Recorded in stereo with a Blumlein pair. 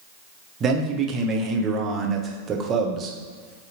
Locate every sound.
0.6 s a man speaking: 20° right, 0.8 m